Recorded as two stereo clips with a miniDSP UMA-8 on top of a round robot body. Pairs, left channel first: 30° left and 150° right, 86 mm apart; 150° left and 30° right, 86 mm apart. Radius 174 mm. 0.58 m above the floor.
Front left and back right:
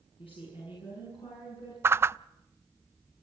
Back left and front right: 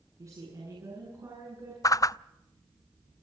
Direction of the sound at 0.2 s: 25° left.